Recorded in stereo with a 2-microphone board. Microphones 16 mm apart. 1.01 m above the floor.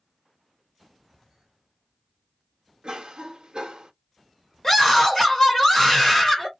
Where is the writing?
I don't hear writing.